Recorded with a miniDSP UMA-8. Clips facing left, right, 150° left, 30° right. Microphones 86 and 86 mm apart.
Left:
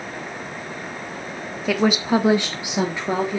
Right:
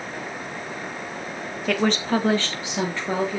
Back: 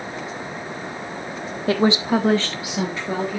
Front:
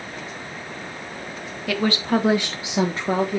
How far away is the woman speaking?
About 1.0 m.